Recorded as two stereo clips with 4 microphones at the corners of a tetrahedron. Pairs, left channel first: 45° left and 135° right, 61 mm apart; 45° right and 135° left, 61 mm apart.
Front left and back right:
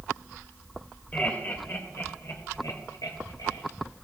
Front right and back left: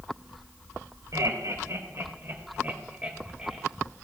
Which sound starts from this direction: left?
Laughter, at 1.1 s.